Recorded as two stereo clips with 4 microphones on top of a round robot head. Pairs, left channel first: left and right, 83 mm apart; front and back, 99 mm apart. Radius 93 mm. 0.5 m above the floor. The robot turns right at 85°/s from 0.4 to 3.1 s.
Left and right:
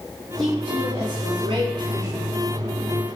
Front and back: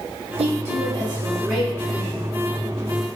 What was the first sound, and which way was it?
A woman speaking, 175° left.